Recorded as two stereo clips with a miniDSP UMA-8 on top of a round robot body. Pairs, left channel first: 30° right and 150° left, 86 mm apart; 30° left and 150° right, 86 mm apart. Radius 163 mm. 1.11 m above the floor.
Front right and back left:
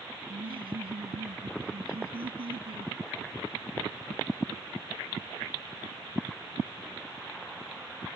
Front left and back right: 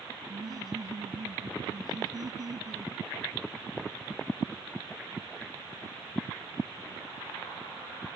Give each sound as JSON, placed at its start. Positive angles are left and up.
{"t": 0.3, "sound": "laughter", "azimuth_deg": 165}